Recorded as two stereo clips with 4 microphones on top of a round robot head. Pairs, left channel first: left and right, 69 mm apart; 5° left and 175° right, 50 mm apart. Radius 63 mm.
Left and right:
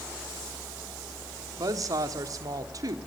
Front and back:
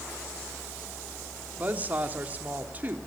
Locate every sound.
1.6 s a woman speaking: 115° right, 1.5 m